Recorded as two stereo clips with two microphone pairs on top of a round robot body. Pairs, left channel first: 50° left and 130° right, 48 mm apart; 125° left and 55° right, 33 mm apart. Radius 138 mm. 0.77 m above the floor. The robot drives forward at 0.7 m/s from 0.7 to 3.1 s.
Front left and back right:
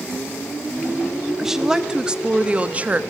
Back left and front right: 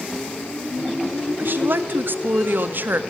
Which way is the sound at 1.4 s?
45° right.